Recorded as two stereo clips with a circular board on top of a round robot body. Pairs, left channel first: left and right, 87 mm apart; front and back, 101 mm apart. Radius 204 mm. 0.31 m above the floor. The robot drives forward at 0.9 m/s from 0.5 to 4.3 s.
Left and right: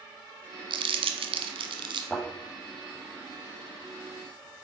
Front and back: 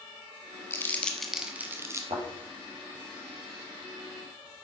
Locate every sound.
0.7 s crumpling: 65° right, 1.3 m; by 2.0 s 120° right, 1.4 m
2.1 s a thud: straight behind, 5 m